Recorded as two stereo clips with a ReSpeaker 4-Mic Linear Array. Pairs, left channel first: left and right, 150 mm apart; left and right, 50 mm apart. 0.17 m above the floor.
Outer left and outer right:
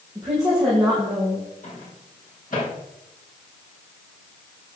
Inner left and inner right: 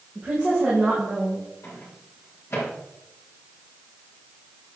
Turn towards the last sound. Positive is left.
turn(degrees=65)  # may be behind; listen again after turning